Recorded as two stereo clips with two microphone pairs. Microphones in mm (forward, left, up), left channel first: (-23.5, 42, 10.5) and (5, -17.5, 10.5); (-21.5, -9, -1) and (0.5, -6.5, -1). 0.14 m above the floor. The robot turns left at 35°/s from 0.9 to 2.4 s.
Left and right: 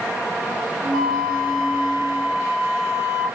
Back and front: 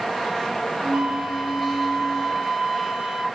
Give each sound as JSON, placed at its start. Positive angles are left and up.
{"t": 0.9, "sound": "a flute", "azimuth_deg": 30, "distance_m": 2.5}